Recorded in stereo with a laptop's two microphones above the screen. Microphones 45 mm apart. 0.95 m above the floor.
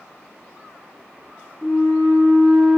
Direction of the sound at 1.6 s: 5° left (ahead or behind).